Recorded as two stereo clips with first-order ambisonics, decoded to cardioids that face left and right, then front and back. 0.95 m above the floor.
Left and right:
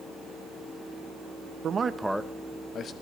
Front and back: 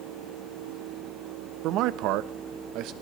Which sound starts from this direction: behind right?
A man speaking, at 1.6 s.